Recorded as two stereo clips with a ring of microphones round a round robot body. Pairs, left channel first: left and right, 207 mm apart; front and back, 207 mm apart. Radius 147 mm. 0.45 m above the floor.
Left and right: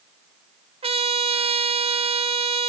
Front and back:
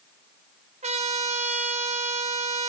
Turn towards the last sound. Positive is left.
turn(degrees=-135)